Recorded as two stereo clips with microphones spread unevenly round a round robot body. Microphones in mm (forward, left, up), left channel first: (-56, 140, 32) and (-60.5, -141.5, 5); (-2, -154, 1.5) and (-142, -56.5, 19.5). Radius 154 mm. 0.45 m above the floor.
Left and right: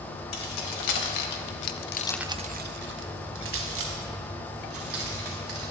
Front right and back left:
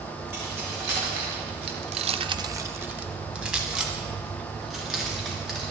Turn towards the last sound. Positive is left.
turn(degrees=-125)